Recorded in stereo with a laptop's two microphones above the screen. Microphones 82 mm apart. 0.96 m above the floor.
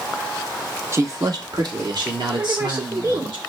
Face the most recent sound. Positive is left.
turn(degrees=-60)  # may be behind; listen again after turning